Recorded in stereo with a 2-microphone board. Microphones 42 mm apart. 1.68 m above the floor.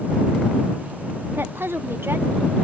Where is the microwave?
I don't hear a microwave.